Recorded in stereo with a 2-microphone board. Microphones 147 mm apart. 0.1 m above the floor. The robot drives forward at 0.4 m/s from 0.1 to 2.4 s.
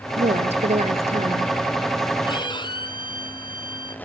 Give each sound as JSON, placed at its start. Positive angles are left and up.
{"t": 0.2, "sound": "a woman speaking", "side_deg": -45, "distance_m": 1.5}
{"t": 2.3, "sound": "a violin", "side_deg": 35, "distance_m": 1.8}